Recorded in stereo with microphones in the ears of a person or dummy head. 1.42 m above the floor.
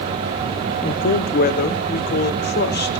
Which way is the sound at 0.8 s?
45° left (ahead or behind).